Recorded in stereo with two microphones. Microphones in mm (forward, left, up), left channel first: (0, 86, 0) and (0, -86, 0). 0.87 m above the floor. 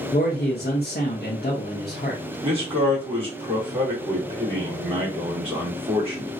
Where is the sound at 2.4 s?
35° right (ahead or behind), 2 m.